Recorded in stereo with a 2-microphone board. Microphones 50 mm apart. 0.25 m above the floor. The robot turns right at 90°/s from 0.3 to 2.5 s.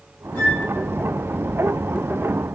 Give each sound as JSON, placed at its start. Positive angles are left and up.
{"t": 0.3, "sound": "a flute", "side_deg": 25, "distance_m": 8.0}